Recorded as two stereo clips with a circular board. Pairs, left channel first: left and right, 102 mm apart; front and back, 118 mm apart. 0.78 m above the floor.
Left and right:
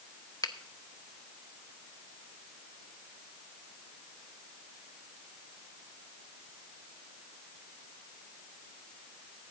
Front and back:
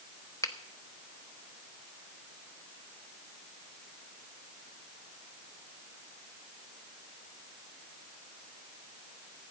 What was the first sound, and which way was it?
A finger snap, 55° left.